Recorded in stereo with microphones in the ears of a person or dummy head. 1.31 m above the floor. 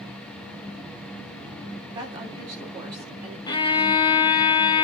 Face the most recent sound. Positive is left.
turn(degrees=25)  # may be behind; listen again after turning